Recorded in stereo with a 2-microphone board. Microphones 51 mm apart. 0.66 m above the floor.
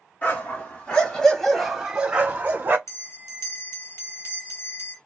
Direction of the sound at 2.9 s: 70° left (ahead or behind).